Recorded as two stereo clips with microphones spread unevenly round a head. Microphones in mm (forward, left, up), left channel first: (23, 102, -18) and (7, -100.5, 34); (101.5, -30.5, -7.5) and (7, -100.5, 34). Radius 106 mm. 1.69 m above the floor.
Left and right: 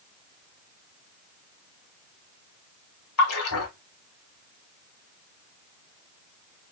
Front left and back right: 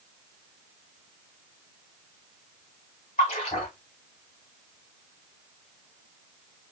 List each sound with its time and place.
3.2 s a splash: 100° left, 1.1 m